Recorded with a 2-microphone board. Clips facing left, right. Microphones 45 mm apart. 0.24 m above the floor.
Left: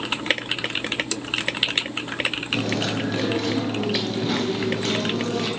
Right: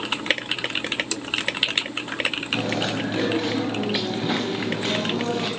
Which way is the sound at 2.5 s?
20° right (ahead or behind).